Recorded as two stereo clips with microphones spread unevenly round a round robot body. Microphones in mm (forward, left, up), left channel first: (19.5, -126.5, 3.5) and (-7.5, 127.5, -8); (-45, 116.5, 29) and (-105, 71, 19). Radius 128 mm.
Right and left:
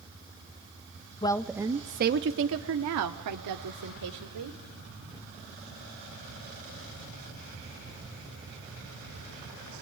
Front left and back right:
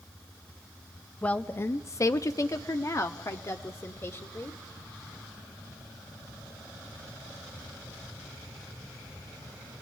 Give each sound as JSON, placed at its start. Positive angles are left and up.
{"t": 1.2, "sound": "a woman speaking", "azimuth_deg": -35, "distance_m": 0.5}